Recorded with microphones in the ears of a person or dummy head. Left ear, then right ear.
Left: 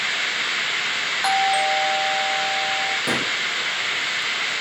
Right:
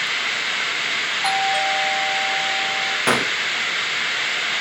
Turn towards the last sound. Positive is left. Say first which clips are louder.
# right 4 dB
turn(degrees=-40)  # may be behind; listen again after turning